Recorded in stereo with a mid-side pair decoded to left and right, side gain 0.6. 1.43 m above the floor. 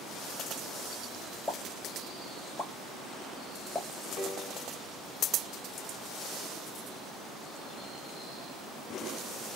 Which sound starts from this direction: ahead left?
A piano, at 4.2 s.